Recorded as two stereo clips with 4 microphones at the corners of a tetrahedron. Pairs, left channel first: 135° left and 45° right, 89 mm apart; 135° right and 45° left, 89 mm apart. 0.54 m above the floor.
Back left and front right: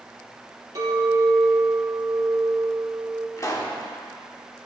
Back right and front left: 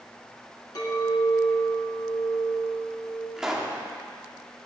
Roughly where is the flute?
No flute in this recording.